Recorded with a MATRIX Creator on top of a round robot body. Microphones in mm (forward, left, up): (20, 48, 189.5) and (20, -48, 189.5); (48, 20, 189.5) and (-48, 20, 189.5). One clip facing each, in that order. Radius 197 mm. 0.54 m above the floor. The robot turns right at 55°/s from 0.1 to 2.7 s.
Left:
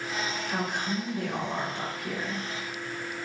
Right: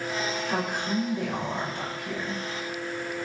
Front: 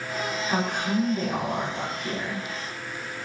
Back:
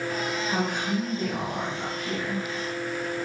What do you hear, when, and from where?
0.5 s a woman speaking: 50° right, 5.5 m; by 2.4 s 55° left, 5.5 m